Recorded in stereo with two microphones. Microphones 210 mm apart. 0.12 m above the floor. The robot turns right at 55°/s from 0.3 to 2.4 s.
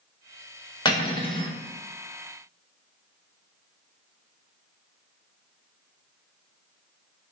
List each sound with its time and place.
0.8 s cutlery clinking: 20° left (ahead or behind), 0.6 m; by 1.5 s 25° left (ahead or behind), 0.6 m